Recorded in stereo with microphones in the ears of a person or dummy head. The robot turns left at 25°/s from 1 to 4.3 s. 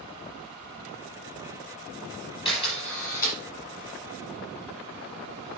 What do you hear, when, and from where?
2.5 s a camera shutter: 25° left (ahead or behind), 6 m; by 3.4 s 45° left (ahead or behind), 6 m